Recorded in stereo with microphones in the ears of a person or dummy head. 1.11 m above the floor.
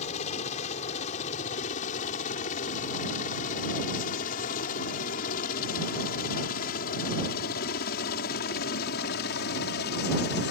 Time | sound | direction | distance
0.0 | a helicopter | 40° left (ahead or behind) | ?